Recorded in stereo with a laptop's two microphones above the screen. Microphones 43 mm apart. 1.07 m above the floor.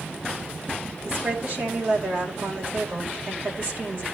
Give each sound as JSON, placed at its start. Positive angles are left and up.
{"t": 1.1, "sound": "a woman speaking", "side_deg": -30, "distance_m": 4.0}